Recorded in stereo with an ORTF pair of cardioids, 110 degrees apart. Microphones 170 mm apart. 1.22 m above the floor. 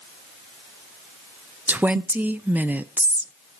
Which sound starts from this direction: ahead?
A woman speaking, at 1.7 s.